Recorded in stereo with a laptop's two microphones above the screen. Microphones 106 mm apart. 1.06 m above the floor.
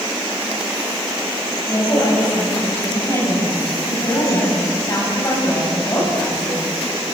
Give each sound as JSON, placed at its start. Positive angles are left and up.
{"t": 1.7, "sound": "a woman speaking", "side_deg": 35, "distance_m": 8.5}